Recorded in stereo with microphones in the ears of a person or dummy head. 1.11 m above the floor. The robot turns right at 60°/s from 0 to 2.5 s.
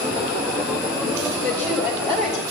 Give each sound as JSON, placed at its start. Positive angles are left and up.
{"t": 1.4, "sound": "a woman speaking", "azimuth_deg": 160, "distance_m": 4.5}